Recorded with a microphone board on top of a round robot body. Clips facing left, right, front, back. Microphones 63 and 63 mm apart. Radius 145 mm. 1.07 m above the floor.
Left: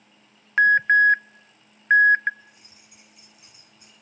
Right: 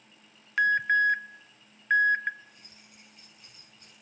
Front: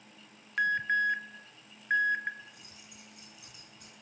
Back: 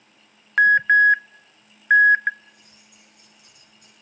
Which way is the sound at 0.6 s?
145° left.